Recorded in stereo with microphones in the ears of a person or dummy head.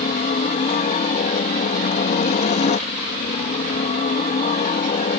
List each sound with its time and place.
0.0 s a helicopter: 35° left (ahead or behind)